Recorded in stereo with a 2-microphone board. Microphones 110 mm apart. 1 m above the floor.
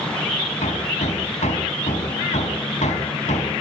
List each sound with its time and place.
0.6 s hammering: 75° left (ahead or behind), 4 m